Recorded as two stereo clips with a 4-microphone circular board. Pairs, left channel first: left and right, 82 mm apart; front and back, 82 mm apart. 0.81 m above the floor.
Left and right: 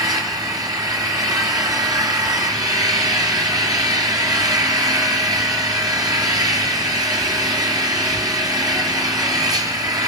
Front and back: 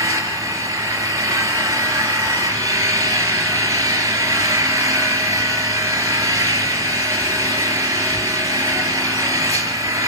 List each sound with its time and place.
0.0 s an engine running: 130° right, 3.5 m